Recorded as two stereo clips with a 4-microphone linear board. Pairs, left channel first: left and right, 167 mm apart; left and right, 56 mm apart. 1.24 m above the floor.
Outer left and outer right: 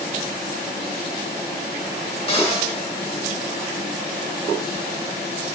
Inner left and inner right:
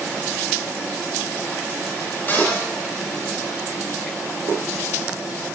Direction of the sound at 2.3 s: 35° left (ahead or behind).